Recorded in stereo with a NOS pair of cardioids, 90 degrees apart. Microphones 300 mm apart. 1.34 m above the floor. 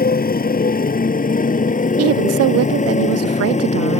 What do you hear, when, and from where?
0.0 s a motorcycle: 30° left; by 4.0 s 20° left
2.0 s a woman speaking: 60° right